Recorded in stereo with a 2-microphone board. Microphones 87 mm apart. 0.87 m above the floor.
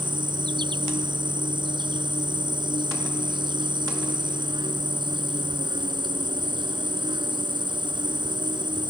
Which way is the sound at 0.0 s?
65° right (ahead or behind).